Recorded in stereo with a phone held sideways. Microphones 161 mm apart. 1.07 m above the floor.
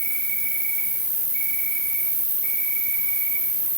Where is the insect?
40° right (ahead or behind), 5 m.